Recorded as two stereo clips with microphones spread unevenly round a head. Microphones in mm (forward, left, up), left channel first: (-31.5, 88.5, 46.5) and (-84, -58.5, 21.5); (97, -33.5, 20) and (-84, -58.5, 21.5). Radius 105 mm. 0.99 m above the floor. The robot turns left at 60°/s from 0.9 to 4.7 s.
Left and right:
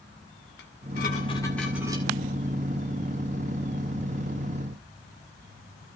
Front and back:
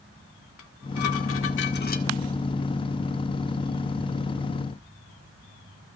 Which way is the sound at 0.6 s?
25° left.